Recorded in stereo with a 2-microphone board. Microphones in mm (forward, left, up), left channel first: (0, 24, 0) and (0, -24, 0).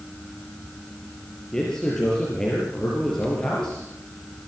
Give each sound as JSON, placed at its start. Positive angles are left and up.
{"t": 1.5, "sound": "a man speaking", "side_deg": 10, "distance_m": 5.5}